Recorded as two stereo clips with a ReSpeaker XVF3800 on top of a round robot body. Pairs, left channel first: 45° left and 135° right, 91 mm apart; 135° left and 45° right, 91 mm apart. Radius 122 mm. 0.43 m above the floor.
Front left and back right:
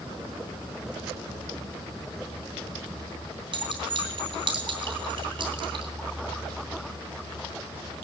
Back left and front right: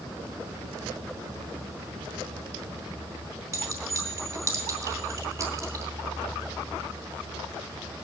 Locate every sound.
3.5 s a clink: 100° right, 3 m